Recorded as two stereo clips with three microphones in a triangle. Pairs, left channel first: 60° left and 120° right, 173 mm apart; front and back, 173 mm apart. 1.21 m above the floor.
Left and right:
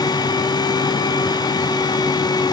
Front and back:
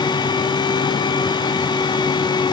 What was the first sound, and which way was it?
Only background noise.